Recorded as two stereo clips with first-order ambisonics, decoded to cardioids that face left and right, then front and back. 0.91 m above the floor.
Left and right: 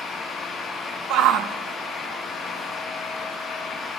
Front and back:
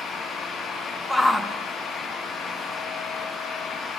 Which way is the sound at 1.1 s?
85° right.